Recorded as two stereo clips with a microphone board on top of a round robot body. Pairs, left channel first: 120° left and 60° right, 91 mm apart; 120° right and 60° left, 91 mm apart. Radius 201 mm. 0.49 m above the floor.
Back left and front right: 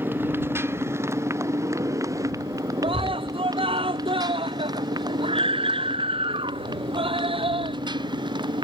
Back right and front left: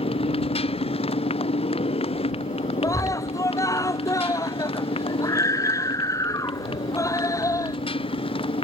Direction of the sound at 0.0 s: 130° right.